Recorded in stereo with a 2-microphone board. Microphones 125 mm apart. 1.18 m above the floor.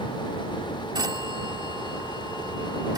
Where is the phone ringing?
35° right (ahead or behind).